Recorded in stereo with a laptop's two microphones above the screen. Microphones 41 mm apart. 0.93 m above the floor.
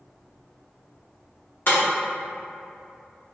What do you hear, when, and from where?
1.7 s breaking glass: 60° left (ahead or behind), 1.0 m